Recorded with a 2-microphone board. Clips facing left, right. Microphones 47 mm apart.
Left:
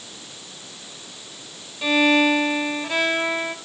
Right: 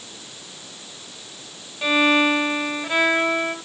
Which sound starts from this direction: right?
A violin, at 1.8 s.